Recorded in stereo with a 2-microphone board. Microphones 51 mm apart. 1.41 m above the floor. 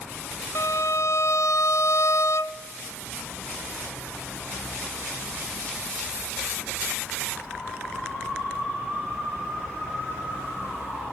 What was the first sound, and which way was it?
A violin, 65° left (ahead or behind).